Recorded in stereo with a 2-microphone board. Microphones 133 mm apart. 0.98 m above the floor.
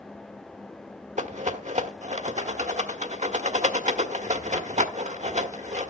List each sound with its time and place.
1.2 s a rattle: 65° right (ahead or behind), 1.5 m